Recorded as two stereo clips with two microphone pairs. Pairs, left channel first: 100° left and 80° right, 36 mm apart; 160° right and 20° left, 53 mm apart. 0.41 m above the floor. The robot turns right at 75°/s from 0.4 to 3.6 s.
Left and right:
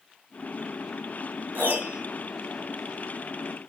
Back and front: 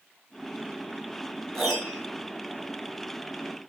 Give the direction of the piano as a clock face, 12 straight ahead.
3 o'clock.